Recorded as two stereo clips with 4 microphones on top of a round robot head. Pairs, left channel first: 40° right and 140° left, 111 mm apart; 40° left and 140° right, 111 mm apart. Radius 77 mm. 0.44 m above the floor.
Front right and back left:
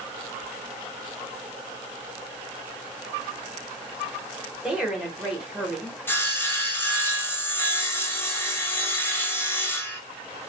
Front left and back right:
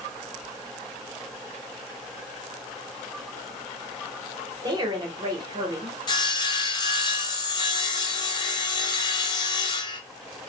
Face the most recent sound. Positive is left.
turn(degrees=20)